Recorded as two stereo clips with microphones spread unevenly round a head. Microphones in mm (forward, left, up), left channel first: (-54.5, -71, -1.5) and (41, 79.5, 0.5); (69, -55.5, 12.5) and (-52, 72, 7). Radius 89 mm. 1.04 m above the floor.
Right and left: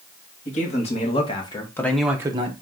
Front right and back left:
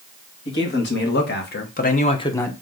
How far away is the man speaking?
About 1.7 m.